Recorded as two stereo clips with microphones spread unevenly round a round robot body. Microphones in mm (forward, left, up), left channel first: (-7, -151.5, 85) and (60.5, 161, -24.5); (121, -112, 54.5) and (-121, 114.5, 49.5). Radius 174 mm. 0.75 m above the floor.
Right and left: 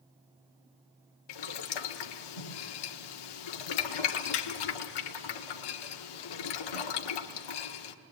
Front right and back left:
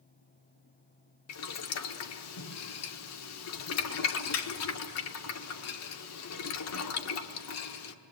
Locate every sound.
1.3 s boiling: 90° right, 1.4 m